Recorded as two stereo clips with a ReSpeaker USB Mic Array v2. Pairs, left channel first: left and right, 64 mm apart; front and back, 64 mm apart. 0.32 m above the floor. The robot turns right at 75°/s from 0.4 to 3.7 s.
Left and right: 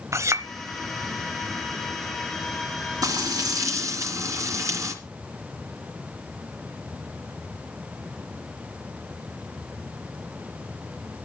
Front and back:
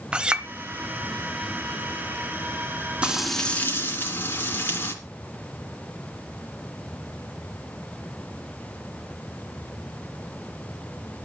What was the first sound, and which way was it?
A clink, 110° right.